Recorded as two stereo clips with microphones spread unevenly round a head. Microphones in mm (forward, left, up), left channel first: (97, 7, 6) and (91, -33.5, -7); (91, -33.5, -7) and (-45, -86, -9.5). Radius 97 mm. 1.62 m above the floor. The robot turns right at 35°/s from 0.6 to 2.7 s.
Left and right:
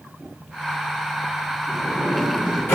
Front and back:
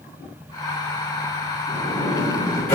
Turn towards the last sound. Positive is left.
turn(degrees=75)